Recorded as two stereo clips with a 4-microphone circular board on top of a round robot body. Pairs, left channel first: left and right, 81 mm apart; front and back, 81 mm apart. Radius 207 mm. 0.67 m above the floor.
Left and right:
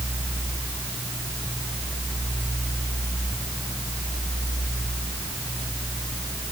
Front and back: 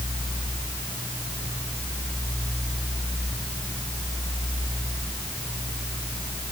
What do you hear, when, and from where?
Only background noise.